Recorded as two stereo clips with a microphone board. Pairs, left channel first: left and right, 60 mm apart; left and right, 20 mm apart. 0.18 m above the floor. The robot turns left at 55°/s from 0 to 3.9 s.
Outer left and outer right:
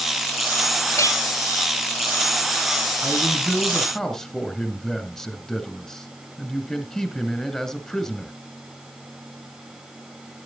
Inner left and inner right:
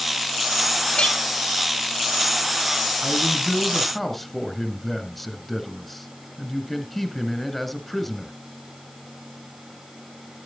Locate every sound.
0.9 s a clink: 65° left (ahead or behind), 2 m; by 1.2 s 70° left (ahead or behind), 2 m
3.0 s a man speaking: 145° right, 2 m; by 8.3 s 170° left, 2 m